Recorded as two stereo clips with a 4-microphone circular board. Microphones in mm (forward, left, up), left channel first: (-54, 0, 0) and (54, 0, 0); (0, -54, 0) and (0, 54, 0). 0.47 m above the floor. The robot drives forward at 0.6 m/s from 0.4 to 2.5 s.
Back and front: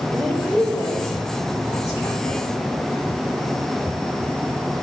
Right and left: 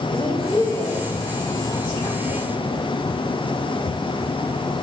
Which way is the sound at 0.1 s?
105° right.